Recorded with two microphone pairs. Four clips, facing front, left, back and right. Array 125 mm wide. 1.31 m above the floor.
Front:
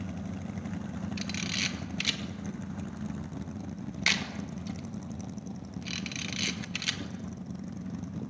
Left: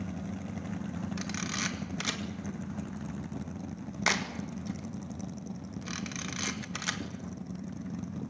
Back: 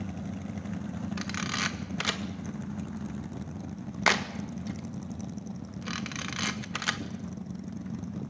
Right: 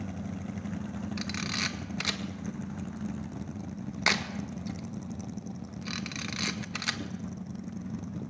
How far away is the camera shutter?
About 1.6 m.